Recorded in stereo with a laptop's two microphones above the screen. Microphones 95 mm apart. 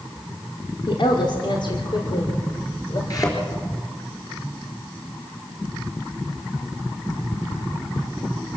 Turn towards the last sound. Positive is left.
turn(degrees=40)  # may be behind; listen again after turning